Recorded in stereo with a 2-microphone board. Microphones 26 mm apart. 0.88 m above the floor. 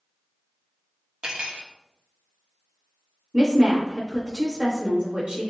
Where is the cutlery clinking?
45° right (ahead or behind), 0.9 m.